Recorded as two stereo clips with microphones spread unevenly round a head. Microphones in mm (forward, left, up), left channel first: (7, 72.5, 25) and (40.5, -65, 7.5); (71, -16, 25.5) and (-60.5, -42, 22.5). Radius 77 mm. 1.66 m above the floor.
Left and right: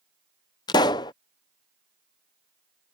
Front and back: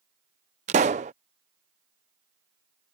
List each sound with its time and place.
0.7 s a pop: 155° left